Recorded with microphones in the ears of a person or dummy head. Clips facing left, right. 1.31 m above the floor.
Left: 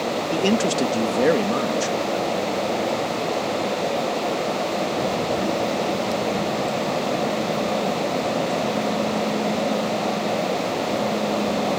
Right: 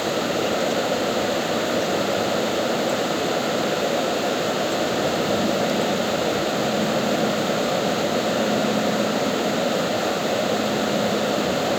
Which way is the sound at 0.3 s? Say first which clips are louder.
Left 5 dB; 75° left (ahead or behind).